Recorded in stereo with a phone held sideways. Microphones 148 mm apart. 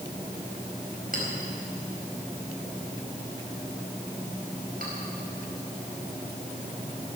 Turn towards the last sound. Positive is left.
turn(degrees=-75)  # may be behind; listen again after turning